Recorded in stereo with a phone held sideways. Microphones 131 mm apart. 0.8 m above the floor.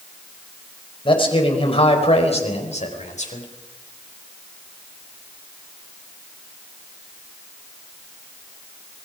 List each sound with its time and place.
1.1 s a man speaking: 40° left (ahead or behind), 4.5 m; by 3.5 s 65° left (ahead or behind), 4 m